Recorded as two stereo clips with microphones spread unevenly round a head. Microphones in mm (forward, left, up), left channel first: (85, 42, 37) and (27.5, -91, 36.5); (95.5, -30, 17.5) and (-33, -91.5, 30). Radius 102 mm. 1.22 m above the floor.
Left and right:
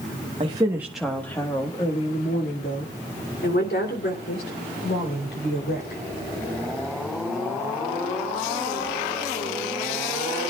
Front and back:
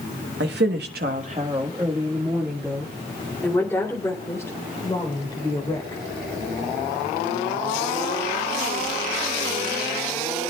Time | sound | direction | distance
0.4 | a woman speaking | straight behind | 1.1 m